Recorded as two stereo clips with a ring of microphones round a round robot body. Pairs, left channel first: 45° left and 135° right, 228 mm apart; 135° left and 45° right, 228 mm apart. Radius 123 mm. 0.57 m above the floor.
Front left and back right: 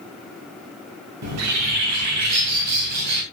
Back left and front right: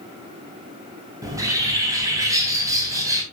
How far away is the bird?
About 2.5 m.